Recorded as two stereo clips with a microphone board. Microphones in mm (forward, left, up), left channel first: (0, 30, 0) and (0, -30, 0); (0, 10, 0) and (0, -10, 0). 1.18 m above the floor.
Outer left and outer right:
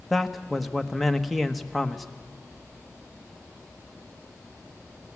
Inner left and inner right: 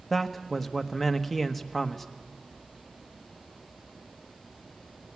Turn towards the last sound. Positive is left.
turn(degrees=0)  # may be behind; listen again after turning